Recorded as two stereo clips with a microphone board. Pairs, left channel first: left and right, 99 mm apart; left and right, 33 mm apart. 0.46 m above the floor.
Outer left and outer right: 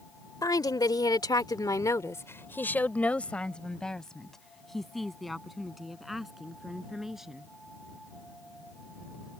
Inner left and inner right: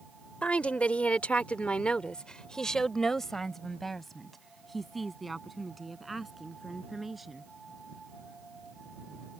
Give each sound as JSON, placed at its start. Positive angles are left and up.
{"t": 0.4, "sound": "a woman speaking", "side_deg": 40}